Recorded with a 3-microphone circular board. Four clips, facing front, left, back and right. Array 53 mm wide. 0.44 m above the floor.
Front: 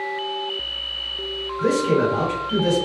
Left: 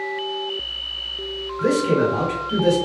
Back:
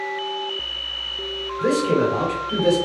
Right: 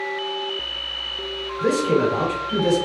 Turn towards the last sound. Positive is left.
turn(degrees=60)